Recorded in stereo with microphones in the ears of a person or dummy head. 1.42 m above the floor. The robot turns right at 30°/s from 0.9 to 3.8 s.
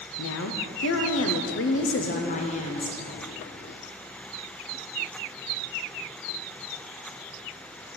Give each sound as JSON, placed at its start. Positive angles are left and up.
{"t": 0.2, "sound": "a woman speaking", "azimuth_deg": 95, "distance_m": 0.6}